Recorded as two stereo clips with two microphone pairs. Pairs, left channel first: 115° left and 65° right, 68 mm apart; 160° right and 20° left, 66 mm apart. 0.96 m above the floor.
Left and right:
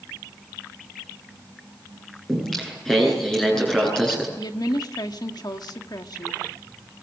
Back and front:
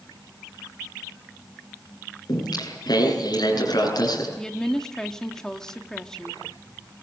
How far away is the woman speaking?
About 2.0 m.